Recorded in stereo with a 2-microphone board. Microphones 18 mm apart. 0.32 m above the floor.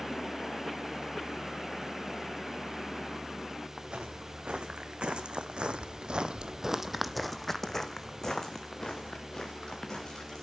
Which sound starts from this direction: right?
Footsteps, at 3.8 s.